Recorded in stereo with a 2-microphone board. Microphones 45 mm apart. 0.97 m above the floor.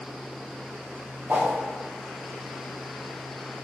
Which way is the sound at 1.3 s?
45° right (ahead or behind).